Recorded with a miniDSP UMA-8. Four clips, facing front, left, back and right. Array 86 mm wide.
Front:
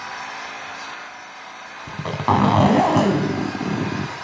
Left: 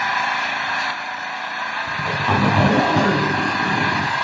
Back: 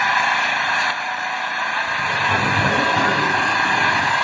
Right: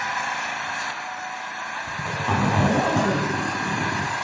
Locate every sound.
0.0 s an engine running: 165° left, 2.5 m
1.9 s a zipper: 15° left, 3 m